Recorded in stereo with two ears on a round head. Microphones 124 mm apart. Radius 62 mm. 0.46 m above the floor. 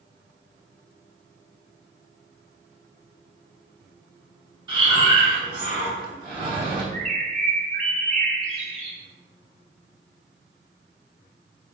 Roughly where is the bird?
Right.